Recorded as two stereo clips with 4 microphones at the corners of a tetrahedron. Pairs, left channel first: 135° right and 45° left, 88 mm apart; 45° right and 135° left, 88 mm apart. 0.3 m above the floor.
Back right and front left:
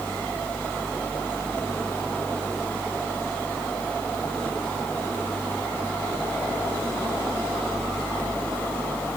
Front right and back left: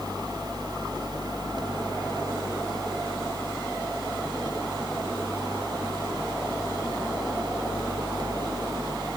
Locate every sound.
Only background noise.